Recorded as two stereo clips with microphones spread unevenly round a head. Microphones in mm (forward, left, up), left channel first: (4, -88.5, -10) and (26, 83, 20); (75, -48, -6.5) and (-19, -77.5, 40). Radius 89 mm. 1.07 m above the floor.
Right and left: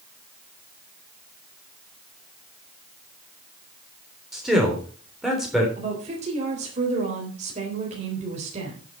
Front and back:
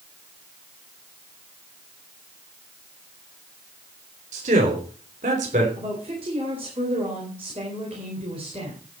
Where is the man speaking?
170° left, 3.5 m.